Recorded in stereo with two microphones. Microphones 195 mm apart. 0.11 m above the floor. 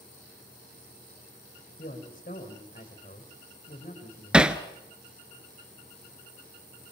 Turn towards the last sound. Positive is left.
turn(degrees=-5)  # may be behind; listen again after turning